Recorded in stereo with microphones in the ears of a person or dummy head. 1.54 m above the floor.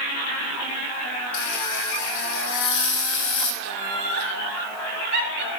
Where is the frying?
65° left (ahead or behind), 1.2 m.